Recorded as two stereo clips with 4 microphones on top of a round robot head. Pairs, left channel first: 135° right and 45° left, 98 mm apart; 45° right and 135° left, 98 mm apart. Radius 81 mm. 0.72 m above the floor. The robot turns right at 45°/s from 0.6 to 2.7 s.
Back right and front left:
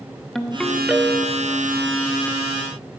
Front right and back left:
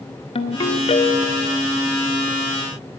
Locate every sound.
0.3 s a ringtone: 50° right, 0.9 m; by 1.6 s 5° right, 0.9 m